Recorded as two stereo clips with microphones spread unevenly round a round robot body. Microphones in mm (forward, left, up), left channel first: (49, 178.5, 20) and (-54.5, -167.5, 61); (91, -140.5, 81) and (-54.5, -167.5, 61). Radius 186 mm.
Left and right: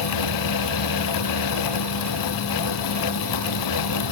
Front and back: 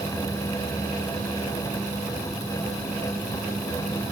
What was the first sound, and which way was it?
Only background noise.